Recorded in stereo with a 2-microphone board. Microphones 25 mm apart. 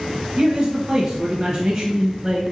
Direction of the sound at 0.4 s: 25° right (ahead or behind).